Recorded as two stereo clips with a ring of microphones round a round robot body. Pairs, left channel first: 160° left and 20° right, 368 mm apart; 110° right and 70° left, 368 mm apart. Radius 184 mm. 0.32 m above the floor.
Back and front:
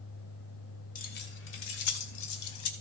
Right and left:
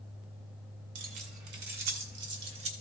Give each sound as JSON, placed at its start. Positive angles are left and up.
{"t": 0.9, "sound": "keys jangling", "azimuth_deg": 90, "distance_m": 1.3}